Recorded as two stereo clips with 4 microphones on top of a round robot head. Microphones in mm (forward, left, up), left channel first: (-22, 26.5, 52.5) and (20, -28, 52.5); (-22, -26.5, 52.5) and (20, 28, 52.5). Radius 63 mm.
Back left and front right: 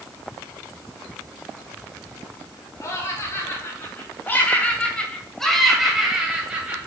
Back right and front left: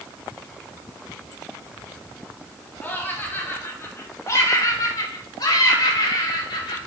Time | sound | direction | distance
2.8 | laughter | 170° left | 3 m